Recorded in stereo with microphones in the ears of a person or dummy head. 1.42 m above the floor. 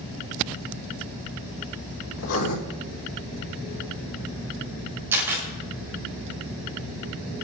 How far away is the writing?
About 4 m.